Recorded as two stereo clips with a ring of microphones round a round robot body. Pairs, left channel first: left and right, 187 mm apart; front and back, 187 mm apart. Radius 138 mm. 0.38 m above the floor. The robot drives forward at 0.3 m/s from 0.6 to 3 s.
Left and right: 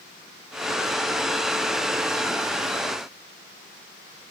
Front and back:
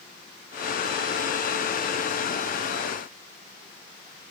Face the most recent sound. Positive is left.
No sound to turn to.